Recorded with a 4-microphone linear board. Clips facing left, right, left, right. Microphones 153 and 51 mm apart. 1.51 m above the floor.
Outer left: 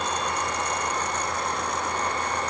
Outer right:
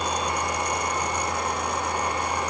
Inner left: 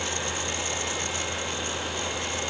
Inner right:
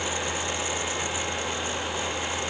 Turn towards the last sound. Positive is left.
No sound to turn to.